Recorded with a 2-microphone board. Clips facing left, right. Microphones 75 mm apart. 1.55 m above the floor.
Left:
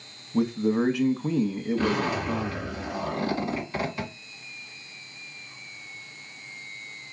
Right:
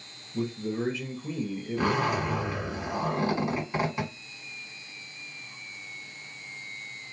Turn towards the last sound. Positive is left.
turn(degrees=-25)  # may be behind; listen again after turning